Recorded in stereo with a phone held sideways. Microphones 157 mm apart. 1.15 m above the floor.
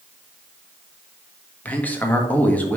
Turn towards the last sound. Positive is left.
turn(degrees=10)  # may be behind; listen again after turning